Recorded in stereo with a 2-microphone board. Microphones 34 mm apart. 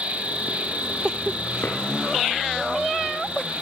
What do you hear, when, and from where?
0.0 s an insect: 35° right (ahead or behind), 4.5 m
1.6 s a drawer: 70° left (ahead or behind), 7.5 m